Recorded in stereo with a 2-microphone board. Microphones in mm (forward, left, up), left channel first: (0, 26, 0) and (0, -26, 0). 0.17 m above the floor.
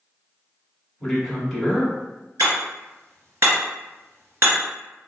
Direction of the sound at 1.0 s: 5° left (ahead or behind).